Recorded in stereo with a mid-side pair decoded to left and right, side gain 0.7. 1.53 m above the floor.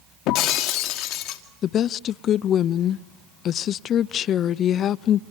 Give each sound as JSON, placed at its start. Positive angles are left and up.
{"t": 0.3, "sound": "breaking glass", "azimuth_deg": 60, "distance_m": 2.0}
{"t": 1.6, "sound": "a woman speaking", "azimuth_deg": 45, "distance_m": 0.5}